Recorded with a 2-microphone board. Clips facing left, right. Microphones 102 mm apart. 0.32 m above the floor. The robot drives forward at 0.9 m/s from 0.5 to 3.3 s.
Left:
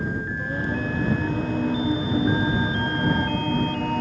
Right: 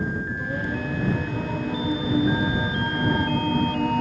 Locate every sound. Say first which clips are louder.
0.4 s singing: left 1 dB; centre (ahead or behind), 5 m; by 4.0 s 5° right (ahead or behind), 2.5 m